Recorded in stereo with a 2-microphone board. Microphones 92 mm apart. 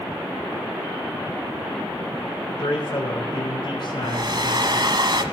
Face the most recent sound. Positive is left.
turn(degrees=-55)  # may be behind; listen again after turning